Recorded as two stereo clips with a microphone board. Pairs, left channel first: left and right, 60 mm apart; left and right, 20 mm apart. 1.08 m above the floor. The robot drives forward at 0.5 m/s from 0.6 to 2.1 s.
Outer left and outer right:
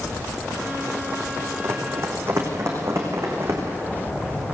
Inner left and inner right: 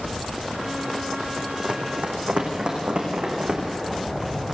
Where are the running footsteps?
45° right (ahead or behind), 4 m; by 3.6 s 50° right (ahead or behind), 5.5 m.